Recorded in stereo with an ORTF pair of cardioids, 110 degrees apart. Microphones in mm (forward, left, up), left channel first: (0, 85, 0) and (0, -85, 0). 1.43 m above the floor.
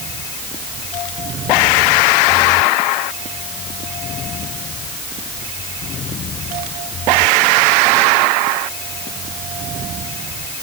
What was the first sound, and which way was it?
Only background noise.